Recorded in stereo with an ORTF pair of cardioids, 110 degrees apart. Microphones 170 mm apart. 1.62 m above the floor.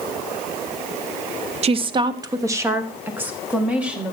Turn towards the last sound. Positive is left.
turn(degrees=-5)